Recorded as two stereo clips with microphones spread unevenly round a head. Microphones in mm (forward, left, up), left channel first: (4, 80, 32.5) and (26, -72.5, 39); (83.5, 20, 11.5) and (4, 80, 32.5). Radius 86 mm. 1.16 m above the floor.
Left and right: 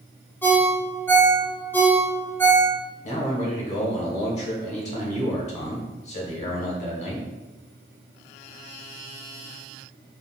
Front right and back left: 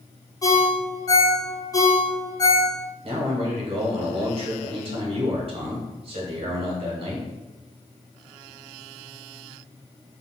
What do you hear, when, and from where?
0.4 s a ringtone: 20° left, 0.8 m
3.0 s a man speaking: 125° left, 1.0 m